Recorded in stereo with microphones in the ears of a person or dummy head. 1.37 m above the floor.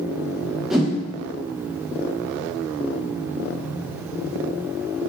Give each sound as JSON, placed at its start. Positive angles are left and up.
{"t": 0.7, "sound": "a whoosh", "side_deg": -5, "distance_m": 0.6}